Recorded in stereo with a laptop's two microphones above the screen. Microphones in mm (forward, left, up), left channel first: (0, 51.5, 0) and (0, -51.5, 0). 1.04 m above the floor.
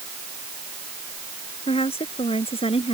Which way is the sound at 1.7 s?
70° left (ahead or behind).